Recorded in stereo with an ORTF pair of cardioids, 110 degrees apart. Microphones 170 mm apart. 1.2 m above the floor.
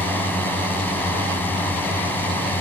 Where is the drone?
10° left.